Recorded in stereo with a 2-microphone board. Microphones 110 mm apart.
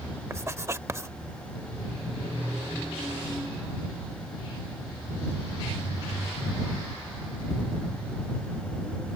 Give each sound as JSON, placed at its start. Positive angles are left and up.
{"t": 0.3, "sound": "writing", "side_deg": -25}